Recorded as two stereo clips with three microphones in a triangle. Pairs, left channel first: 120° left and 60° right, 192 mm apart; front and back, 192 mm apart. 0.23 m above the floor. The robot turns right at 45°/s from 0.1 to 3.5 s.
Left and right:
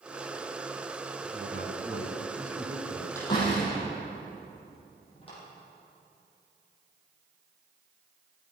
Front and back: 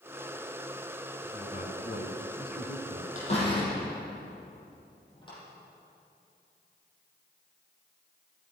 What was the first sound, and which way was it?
A man speaking, 50° right.